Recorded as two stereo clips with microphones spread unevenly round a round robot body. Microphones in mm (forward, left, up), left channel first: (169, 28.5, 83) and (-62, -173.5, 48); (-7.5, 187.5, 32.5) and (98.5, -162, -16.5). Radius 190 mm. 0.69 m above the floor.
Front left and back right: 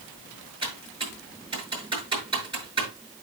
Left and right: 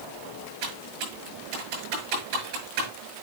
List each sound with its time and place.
0.6 s typing on a keyboard: 65° right, 8 m